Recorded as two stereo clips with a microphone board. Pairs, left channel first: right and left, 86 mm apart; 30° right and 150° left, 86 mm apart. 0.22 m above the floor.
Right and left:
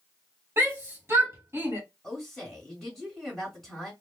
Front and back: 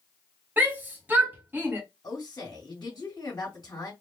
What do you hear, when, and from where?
0.6 s a shout: 105° left, 1.4 m
2.0 s a woman speaking: 5° right, 2.5 m